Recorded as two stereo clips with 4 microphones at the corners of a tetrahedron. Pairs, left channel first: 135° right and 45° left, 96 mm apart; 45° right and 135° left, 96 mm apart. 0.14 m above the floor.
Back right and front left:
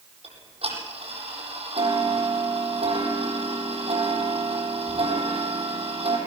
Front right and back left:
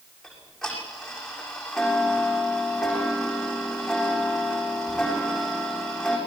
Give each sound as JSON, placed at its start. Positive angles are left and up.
{"t": 0.2, "sound": "ticking", "azimuth_deg": 40, "distance_m": 7.5}